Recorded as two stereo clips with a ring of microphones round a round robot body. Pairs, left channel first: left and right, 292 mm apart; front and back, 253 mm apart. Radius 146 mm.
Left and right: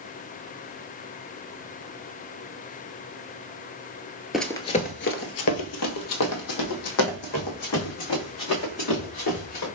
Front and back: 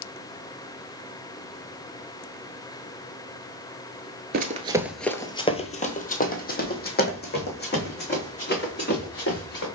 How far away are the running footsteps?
About 0.5 m.